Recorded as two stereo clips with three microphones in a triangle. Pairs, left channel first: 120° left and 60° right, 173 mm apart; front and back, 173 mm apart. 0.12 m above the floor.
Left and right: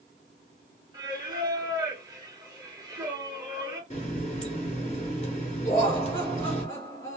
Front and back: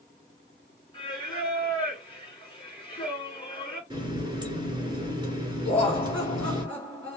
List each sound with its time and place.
0.9 s singing: 25° right, 1.9 m
3.9 s a running tap: 130° left, 1.3 m
5.7 s laughter: 75° left, 2 m